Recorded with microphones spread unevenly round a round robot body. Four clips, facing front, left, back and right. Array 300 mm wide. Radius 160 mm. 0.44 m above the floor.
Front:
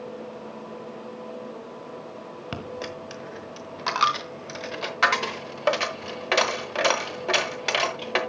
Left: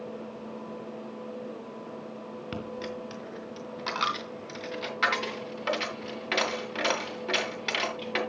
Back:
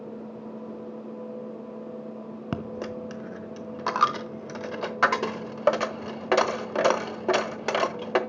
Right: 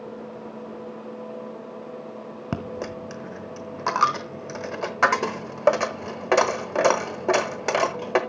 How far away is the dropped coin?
About 0.8 m.